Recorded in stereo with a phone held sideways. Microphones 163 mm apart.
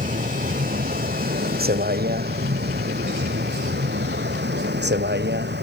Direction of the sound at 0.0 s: 55° right (ahead or behind).